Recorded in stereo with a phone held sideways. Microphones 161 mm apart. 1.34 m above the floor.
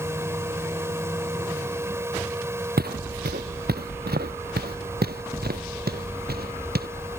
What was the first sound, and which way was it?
A fan, 15° right (ahead or behind).